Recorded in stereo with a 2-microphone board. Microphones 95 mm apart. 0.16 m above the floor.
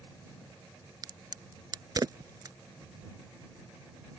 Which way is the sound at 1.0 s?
45° right (ahead or behind).